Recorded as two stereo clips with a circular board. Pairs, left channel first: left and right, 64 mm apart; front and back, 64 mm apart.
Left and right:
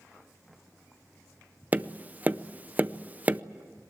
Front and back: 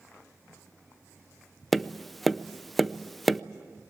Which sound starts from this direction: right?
Tapping, at 1.7 s.